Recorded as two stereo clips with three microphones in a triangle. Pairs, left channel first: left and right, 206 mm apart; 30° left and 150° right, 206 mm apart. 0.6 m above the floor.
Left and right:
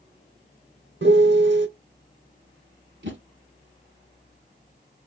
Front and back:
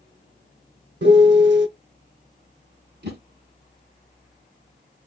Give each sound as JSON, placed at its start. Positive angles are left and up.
{"t": 1.0, "sound": "a piano", "azimuth_deg": -120, "distance_m": 0.7}
{"t": 3.0, "sound": "a whoosh", "azimuth_deg": -115, "distance_m": 1.0}